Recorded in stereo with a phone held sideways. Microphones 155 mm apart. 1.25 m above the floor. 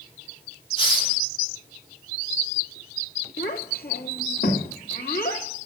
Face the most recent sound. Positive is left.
turn(degrees=75)  # may be behind; listen again after turning